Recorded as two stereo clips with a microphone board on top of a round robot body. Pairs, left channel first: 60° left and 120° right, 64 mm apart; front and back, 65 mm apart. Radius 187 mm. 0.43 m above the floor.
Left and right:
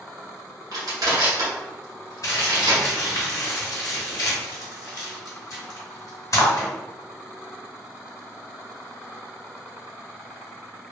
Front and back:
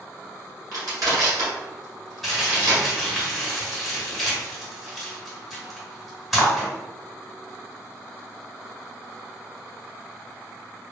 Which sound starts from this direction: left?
Crumpling, at 2.2 s.